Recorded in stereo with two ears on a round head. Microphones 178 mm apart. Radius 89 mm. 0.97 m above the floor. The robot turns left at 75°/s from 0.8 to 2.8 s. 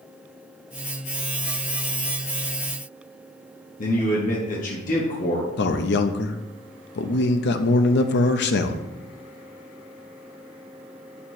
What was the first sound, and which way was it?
A man speaking, 40° left (ahead or behind).